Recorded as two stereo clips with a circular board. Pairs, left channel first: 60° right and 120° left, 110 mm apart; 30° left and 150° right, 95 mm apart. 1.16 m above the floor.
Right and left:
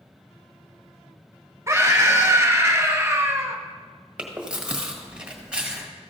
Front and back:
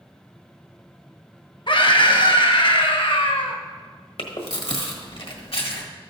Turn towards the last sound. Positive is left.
turn(degrees=40)